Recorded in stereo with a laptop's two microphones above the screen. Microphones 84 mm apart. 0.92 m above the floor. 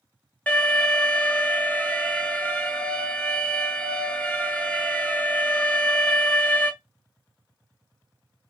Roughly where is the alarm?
Centre.